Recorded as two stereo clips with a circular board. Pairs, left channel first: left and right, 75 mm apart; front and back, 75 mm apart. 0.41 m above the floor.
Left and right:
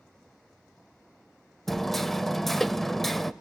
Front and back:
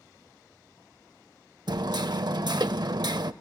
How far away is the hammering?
About 0.5 m.